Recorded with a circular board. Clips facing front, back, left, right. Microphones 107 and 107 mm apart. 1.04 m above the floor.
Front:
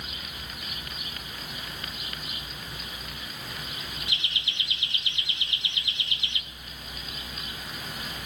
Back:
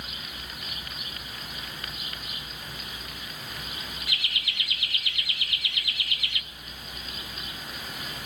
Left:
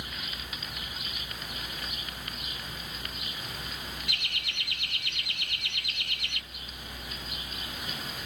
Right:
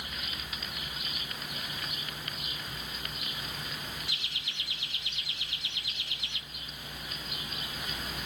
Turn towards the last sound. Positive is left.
turn(degrees=65)